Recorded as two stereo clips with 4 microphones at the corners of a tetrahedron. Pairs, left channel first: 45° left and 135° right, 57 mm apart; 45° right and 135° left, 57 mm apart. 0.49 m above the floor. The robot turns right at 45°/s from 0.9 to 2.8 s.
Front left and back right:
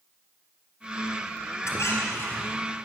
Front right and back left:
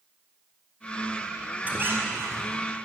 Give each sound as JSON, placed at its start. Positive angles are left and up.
{"t": 1.6, "sound": "a squeak", "azimuth_deg": 75, "distance_m": 1.8}